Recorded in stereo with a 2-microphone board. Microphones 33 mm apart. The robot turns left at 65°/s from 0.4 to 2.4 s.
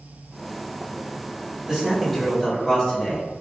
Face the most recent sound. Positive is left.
turn(degrees=155)